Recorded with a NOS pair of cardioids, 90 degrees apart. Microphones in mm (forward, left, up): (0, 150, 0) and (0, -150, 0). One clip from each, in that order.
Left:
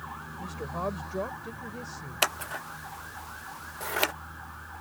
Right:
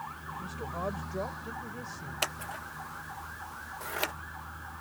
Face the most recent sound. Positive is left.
turn(degrees=25)